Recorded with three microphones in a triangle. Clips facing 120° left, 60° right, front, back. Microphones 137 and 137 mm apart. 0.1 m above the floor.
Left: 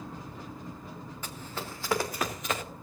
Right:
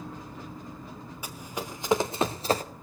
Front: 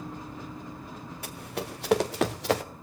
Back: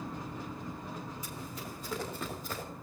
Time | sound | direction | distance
1.2 | running footsteps | 20° left | 2.5 m